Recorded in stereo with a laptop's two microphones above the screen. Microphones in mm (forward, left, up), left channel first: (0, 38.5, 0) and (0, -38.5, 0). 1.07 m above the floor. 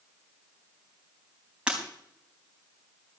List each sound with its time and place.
1.7 s breaking glass: 15° right (ahead or behind), 4 m